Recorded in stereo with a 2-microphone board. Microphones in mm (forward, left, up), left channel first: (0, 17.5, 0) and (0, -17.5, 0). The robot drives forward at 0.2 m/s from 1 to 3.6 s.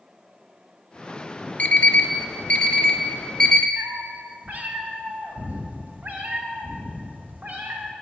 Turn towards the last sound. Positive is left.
turn(degrees=-60)  # may be behind; listen again after turning